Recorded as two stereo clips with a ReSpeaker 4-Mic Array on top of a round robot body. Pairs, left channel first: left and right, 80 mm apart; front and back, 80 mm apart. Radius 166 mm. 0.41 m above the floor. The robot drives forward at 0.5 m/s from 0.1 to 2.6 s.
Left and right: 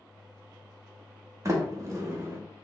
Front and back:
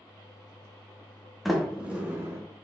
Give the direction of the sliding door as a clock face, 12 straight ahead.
3 o'clock.